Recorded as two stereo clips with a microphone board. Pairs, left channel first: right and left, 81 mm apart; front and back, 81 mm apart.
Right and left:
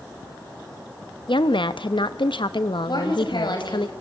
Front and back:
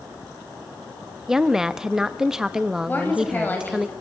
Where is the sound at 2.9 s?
65° right, 6 m.